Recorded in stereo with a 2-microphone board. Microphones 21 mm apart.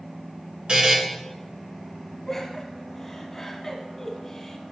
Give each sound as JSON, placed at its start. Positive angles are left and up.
{"t": 0.7, "sound": "a buzzer", "side_deg": -45, "distance_m": 1.3}
{"t": 2.3, "sound": "laughter", "side_deg": 15, "distance_m": 1.3}